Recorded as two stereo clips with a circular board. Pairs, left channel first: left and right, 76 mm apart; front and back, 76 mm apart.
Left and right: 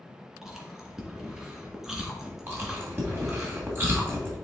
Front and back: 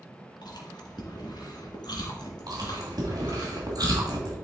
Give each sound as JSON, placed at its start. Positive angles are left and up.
{"t": 0.4, "sound": "chewing", "azimuth_deg": -5, "distance_m": 1.9}
{"t": 2.5, "sound": "chewing", "azimuth_deg": -150, "distance_m": 2.5}